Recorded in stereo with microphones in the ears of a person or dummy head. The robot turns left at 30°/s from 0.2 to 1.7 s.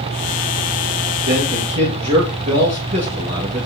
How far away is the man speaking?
About 2 m.